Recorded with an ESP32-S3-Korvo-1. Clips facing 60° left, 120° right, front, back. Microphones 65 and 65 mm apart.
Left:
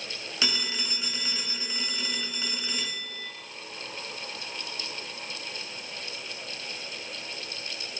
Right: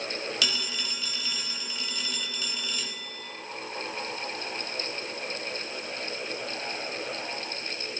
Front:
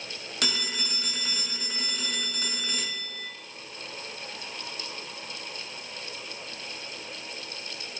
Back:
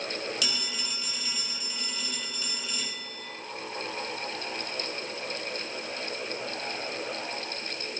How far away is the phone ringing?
About 1.2 m.